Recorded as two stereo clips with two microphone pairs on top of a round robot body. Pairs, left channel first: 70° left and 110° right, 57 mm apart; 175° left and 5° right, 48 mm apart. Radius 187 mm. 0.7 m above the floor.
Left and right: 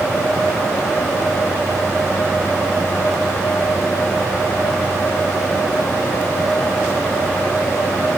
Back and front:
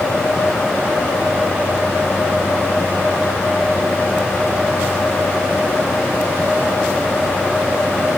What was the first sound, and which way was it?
Only background noise.